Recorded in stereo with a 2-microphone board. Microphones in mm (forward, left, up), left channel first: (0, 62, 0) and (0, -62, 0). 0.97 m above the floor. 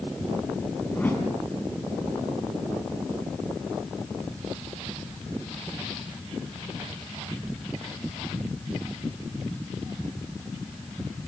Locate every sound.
0.9 s a whoosh: 15° left (ahead or behind), 5.5 m